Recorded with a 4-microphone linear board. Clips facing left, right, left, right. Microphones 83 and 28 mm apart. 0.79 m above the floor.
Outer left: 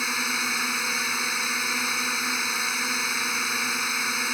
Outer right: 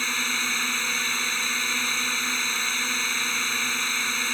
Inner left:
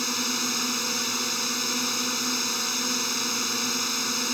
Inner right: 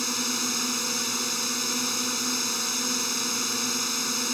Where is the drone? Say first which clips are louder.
Outer left 1 dB, inner left 1 dB; 10° left (ahead or behind).